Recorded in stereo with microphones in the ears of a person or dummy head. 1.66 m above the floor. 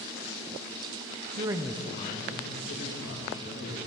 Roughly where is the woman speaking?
Right.